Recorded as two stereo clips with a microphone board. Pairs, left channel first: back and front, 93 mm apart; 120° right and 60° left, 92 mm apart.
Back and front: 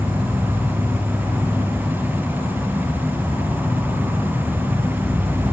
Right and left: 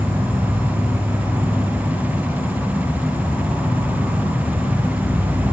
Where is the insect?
110° right, 2.5 m.